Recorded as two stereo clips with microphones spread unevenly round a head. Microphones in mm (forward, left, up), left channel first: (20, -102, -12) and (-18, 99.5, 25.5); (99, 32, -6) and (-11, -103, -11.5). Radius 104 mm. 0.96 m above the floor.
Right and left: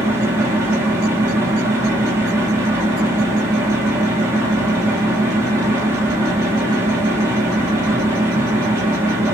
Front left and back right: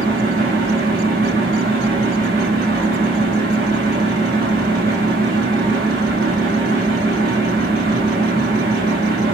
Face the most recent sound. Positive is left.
turn(degrees=180)